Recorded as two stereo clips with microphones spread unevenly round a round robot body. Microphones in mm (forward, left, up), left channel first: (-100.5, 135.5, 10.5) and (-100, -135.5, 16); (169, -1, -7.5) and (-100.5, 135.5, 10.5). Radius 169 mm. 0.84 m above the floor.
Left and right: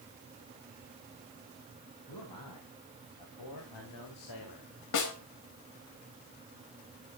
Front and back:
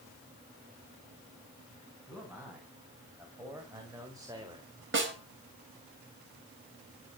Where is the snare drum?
100° left, 4 m.